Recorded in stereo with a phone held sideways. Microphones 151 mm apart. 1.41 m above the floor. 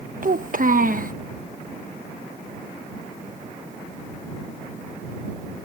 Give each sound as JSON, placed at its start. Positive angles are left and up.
{"t": 0.2, "sound": "a child speaking", "side_deg": -65}